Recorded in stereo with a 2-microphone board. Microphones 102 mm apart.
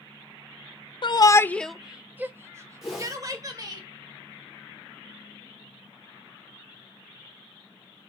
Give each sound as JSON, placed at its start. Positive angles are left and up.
{"t": 1.0, "sound": "a shout", "side_deg": 55, "distance_m": 0.5}
{"t": 2.8, "sound": "a whoosh", "side_deg": -5, "distance_m": 3.5}